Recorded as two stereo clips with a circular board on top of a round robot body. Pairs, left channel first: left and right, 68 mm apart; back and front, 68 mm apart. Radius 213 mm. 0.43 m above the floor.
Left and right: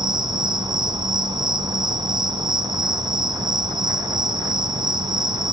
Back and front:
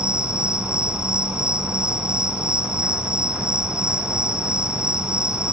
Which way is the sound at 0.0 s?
80° right.